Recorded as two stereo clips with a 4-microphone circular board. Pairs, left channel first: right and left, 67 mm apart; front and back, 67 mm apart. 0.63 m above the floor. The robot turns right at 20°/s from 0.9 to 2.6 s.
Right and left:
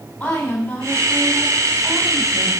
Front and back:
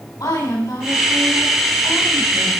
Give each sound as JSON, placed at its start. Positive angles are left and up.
{"t": 0.2, "sound": "a woman speaking", "azimuth_deg": -15, "distance_m": 4.5}